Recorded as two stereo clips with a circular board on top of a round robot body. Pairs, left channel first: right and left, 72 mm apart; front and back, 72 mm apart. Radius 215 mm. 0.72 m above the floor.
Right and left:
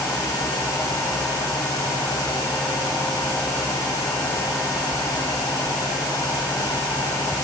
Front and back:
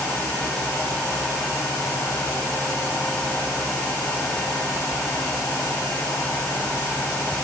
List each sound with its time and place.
Only background noise.